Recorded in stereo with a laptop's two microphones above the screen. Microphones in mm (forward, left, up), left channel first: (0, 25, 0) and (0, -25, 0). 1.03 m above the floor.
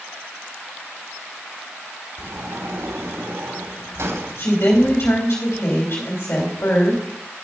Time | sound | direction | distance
2.2 | a sliding door | 75° right (ahead or behind) | 2 m
4.4 | a woman speaking | 60° left (ahead or behind) | 3 m